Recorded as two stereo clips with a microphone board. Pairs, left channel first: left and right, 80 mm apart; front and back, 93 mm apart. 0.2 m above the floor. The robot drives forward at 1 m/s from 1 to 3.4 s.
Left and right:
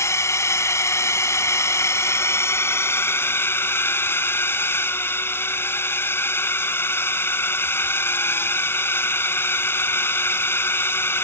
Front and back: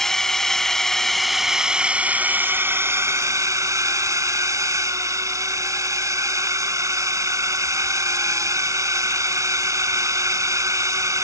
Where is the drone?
85° left; by 11.2 s 140° left.